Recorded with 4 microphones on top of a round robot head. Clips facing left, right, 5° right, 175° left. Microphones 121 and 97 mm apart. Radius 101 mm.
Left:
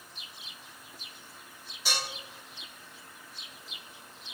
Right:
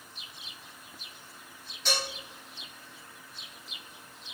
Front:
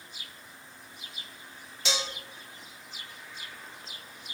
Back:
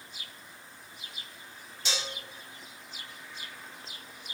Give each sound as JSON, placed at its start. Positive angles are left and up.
{"t": 1.9, "sound": "dishes clattering", "azimuth_deg": 5, "distance_m": 0.6}